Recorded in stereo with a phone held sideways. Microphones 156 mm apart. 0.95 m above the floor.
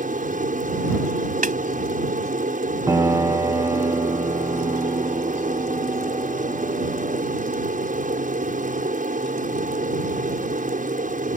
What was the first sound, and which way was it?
An aircraft, 55° right (ahead or behind).